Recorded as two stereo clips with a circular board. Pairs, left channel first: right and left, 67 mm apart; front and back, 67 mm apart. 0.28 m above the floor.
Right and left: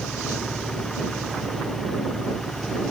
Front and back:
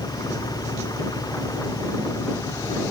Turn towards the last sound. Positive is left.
turn(degrees=-5)